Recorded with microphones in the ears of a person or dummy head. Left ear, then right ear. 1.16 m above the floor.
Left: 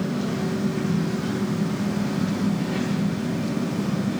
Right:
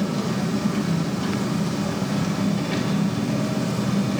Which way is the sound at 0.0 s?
45° right (ahead or behind).